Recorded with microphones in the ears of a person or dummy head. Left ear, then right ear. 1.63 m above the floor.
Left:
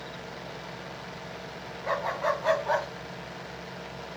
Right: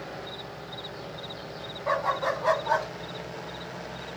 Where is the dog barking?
10° left (ahead or behind), 1.8 m.